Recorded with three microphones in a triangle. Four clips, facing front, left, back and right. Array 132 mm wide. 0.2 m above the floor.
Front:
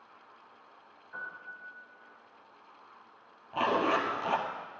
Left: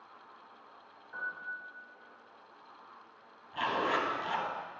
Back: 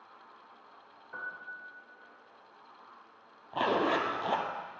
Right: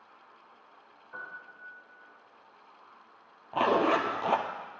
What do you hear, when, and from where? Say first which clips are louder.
1.1 s a piano: left 4 dB, back 1 dB; 155° right, 3.5 m
3.5 s a zipper: right 7 dB, front 1 dB; 105° right, 1.5 m